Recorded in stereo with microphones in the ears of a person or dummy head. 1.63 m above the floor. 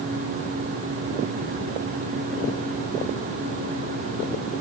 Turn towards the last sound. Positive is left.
No sound to turn to.